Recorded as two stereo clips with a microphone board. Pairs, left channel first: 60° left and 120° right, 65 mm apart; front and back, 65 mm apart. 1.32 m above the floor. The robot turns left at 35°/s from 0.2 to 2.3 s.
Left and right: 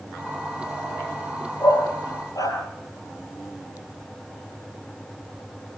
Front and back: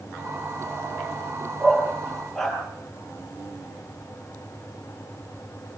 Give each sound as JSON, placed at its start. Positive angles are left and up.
{"t": 1.6, "sound": "a dog barking", "azimuth_deg": 110, "distance_m": 8.5}